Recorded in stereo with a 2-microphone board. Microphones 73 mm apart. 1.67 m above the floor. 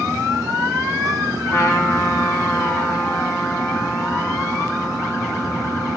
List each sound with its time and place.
1.5 s a trumpet: 45° left (ahead or behind), 5.5 m